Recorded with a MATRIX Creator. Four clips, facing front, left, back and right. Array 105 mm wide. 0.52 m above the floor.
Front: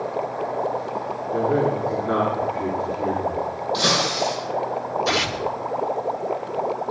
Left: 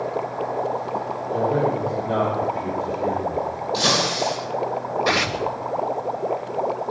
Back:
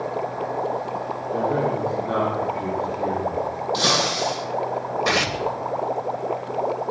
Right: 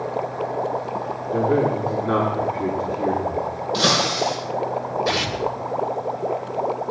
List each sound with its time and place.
1.3 s a man speaking: 80° right, 5.5 m
3.7 s breaking glass: 105° right, 9 m
5.0 s tearing paper: 155° left, 2.5 m